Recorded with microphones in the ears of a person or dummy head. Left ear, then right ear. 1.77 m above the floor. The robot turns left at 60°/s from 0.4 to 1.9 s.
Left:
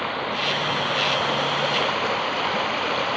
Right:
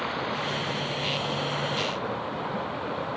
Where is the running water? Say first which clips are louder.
Left 5 dB; 160° left; by 3.2 s 70° left.